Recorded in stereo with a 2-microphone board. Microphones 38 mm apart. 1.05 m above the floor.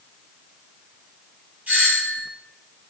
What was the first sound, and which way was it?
A doorbell, 40° right (ahead or behind).